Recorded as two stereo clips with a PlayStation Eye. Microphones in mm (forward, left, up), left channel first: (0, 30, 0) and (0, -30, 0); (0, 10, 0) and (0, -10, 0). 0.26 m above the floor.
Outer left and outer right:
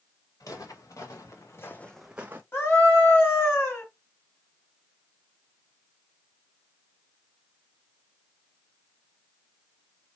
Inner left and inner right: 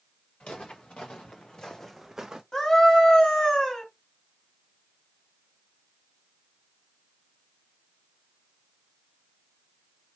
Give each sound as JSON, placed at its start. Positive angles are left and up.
{"t": 0.4, "sound": "footsteps", "side_deg": 80, "distance_m": 2.0}
{"t": 2.5, "sound": "a scream", "side_deg": 40, "distance_m": 1.9}